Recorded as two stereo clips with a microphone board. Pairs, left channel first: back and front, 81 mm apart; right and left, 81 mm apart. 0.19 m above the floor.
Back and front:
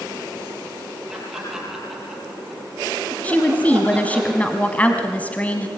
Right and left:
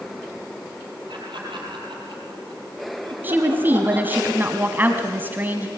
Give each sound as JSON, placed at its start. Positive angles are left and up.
{"t": 1.1, "sound": "laughter", "azimuth_deg": 85, "distance_m": 4.5}
{"t": 3.2, "sound": "a woman speaking", "azimuth_deg": 125, "distance_m": 1.7}